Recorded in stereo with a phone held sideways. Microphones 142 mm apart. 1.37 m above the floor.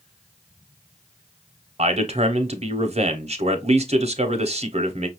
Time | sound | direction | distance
1.8 | a man speaking | 50° right (ahead or behind) | 0.7 m